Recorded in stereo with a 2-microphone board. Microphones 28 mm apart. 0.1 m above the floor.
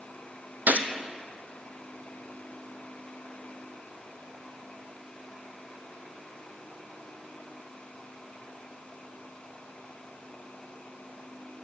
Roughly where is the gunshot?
Right.